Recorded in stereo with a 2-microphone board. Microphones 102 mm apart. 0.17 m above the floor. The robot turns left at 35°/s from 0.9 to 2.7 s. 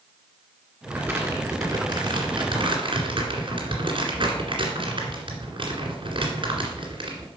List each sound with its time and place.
0.9 s crumpling: 20° right (ahead or behind), 2 m; by 7.3 s 55° right (ahead or behind), 2 m